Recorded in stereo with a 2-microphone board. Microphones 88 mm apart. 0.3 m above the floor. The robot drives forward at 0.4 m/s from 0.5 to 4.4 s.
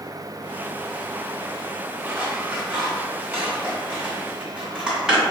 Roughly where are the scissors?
Centre.